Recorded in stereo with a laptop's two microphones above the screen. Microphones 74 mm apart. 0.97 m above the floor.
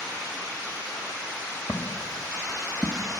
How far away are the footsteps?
About 1.4 m.